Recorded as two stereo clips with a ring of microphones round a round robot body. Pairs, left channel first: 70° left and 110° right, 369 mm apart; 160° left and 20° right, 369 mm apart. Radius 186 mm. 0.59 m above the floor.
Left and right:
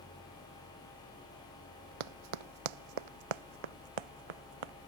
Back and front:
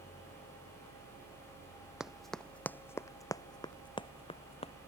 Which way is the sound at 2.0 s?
110° right.